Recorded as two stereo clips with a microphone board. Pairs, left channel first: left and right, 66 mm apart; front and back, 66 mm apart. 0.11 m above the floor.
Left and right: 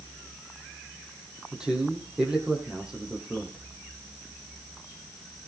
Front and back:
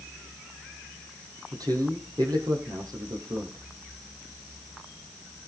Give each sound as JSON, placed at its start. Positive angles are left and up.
{"t": 1.5, "sound": "a man speaking", "azimuth_deg": -170, "distance_m": 4.0}